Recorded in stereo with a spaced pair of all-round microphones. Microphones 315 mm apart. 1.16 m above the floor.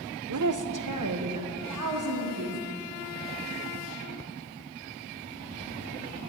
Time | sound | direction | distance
0.3 | a woman speaking | 60° right (ahead or behind) | 0.6 m